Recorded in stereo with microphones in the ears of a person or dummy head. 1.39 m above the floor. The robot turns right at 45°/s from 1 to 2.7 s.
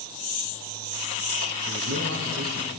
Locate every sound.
1.7 s a man speaking: 105° right, 0.7 m; by 2.7 s 60° right, 0.7 m